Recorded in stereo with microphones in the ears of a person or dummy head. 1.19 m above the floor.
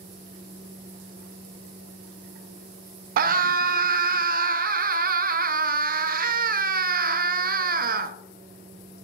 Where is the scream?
40° right (ahead or behind), 0.5 m.